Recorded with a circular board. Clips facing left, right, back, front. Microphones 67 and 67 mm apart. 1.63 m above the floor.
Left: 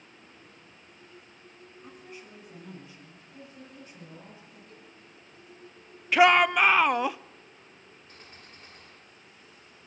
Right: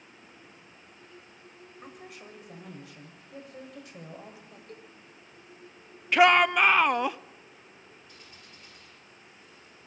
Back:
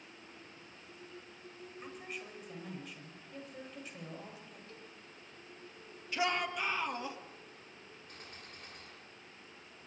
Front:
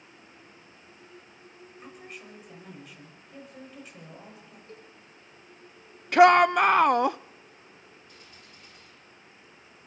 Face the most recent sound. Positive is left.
turn(degrees=140)